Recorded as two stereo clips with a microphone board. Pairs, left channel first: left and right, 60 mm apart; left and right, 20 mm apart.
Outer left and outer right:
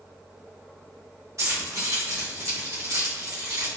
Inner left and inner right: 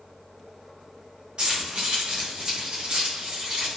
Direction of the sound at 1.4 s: 50° right (ahead or behind).